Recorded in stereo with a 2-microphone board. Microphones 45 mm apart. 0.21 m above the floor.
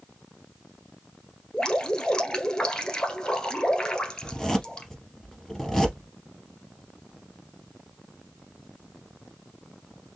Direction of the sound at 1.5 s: 15° left (ahead or behind).